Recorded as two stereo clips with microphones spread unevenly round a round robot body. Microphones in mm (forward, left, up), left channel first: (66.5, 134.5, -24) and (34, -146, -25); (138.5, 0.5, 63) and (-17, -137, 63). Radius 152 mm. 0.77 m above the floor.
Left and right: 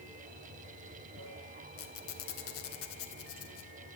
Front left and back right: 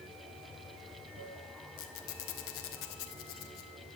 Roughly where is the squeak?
Ahead left.